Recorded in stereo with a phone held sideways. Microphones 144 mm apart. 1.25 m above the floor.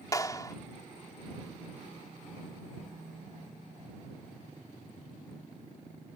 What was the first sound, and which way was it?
A clap, 25° left (ahead or behind).